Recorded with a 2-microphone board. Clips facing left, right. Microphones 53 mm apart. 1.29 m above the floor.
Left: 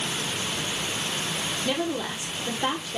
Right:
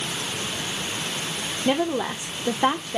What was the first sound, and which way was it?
A woman speaking, 30° right (ahead or behind).